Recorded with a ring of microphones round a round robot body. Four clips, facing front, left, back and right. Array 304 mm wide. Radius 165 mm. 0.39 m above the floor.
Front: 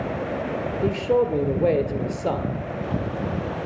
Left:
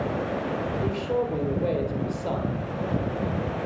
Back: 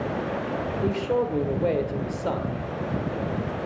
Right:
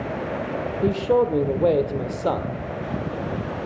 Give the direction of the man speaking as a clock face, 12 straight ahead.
2 o'clock.